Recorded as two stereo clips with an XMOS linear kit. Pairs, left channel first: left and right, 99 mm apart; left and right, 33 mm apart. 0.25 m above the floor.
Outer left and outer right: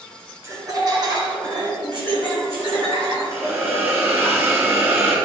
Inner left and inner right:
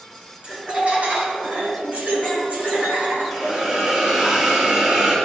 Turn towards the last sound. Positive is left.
turn(degrees=-20)  # may be behind; listen again after turning